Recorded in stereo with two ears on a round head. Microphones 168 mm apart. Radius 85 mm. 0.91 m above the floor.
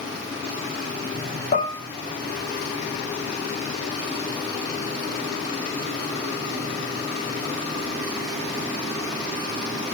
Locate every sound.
1.5 s dishes clattering: 40° left (ahead or behind), 3 m